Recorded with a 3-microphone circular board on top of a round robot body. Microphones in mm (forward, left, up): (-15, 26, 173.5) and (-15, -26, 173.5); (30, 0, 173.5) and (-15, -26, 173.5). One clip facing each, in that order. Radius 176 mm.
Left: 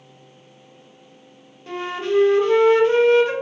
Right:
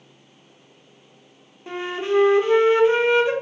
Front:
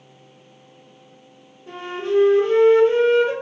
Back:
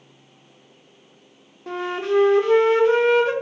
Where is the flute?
160° right, 0.6 m.